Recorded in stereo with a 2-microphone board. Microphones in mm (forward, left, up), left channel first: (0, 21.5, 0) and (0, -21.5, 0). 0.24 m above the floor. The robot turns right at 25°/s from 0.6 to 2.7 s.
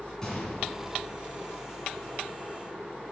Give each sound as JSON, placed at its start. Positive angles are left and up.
{"t": 0.2, "sound": "a gunshot", "side_deg": 15, "distance_m": 3.0}